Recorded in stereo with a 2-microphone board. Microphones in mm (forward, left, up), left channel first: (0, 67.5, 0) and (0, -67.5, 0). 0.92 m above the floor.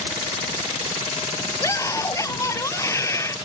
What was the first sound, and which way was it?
A scream, 25° left (ahead or behind).